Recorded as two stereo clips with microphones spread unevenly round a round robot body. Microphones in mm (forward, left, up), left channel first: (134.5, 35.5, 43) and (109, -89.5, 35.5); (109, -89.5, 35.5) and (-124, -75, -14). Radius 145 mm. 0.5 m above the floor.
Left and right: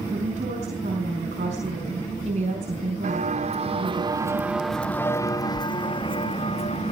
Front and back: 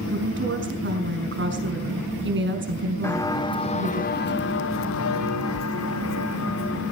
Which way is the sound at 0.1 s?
150° right.